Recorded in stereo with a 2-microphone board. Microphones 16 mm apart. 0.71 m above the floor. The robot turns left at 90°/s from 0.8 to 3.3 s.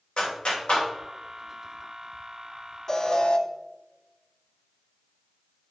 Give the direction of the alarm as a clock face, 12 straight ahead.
7 o'clock.